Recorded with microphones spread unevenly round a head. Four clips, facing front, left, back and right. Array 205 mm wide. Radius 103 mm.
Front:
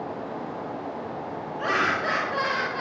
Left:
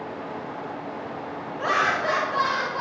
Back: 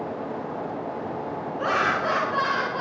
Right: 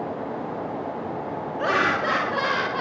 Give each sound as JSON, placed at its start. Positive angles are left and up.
{"t": 1.6, "sound": "laughter", "azimuth_deg": -75, "distance_m": 2.5}